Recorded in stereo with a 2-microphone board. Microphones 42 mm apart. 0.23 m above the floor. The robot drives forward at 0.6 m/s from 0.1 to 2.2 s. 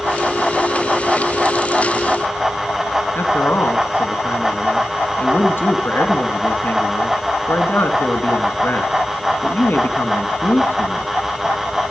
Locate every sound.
3.1 s a man speaking: 60° left (ahead or behind), 3 m